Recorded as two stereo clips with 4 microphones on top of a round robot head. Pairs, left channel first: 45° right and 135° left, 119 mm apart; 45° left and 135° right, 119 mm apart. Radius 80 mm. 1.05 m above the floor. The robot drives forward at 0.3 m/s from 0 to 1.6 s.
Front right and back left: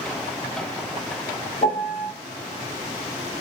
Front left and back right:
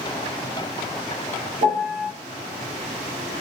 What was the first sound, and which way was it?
A piano, 125° right.